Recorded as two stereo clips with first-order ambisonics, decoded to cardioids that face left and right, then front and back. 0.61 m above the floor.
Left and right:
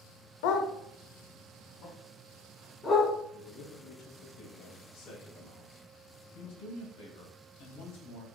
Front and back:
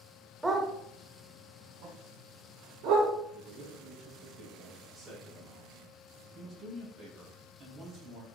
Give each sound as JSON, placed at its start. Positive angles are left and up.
{"t": 0.4, "sound": "a dog barking", "azimuth_deg": 95, "distance_m": 0.9}
{"t": 3.3, "sound": "a man speaking", "azimuth_deg": 95, "distance_m": 3.0}
{"t": 4.9, "sound": "a man speaking", "azimuth_deg": 100, "distance_m": 3.0}